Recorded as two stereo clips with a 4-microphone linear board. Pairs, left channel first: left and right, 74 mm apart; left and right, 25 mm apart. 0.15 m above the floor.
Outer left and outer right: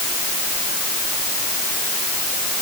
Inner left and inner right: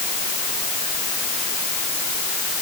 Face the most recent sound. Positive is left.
No sound to turn to.